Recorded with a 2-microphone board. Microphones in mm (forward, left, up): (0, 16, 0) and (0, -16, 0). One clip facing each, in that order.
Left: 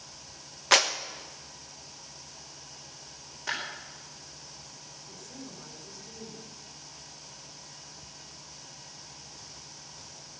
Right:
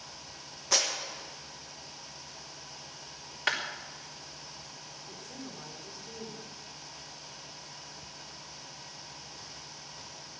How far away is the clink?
No clink in this recording.